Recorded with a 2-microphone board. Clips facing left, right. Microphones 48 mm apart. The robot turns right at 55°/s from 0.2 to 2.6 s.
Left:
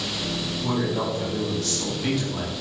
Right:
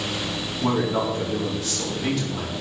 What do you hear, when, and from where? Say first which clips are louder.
0.6 s a man speaking: right 4 dB; 80° right, 4.5 m; by 2.5 s 25° left, 4.5 m